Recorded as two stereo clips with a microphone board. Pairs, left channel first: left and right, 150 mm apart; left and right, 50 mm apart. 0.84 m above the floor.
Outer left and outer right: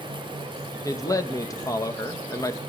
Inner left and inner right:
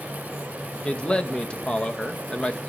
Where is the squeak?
I don't hear a squeak.